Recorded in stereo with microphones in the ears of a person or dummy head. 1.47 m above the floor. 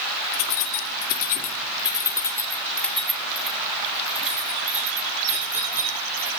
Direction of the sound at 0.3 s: 70° left (ahead or behind).